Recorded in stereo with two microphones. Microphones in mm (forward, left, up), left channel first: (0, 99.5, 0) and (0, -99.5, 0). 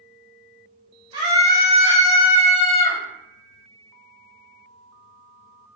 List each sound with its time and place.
1.1 s a scream: 25° right (ahead or behind), 0.9 m; by 3.0 s 5° right (ahead or behind), 1.4 m